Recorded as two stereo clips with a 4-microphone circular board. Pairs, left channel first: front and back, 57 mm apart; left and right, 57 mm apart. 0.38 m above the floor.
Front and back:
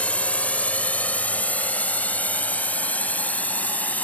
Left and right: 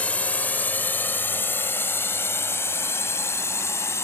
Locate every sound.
0.0 s a drone: 45° left; by 4.0 s 60° left